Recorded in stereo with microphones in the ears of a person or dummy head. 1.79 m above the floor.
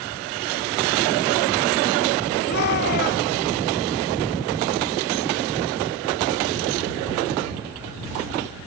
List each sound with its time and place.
2.5 s a shout: 55° left (ahead or behind)